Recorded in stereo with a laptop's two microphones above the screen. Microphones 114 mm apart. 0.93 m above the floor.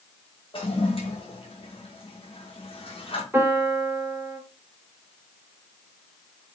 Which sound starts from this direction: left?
A toilet flushing, at 0.5 s.